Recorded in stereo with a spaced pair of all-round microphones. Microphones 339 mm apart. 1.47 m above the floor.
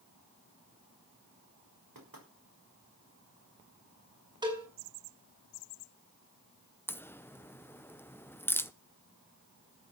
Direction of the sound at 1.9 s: 75° right (ahead or behind).